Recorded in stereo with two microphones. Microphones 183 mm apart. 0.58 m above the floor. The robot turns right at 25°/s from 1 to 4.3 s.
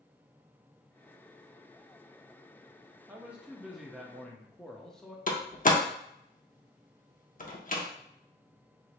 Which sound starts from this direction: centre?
A man speaking, at 3.1 s.